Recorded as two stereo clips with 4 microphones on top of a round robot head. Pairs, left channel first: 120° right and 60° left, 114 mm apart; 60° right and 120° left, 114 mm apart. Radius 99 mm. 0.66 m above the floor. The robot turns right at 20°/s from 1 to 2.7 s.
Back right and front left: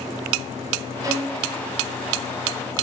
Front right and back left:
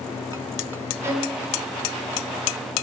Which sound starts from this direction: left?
A violin, at 1.0 s.